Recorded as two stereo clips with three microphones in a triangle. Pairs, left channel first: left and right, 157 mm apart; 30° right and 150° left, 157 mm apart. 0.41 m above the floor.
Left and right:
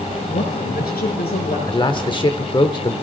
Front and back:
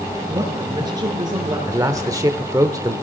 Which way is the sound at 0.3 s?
85° left.